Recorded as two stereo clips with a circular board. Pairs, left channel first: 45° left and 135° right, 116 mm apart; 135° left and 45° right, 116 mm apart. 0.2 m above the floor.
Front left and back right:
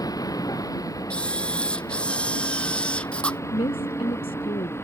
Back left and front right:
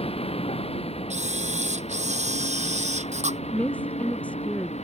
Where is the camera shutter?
35° right.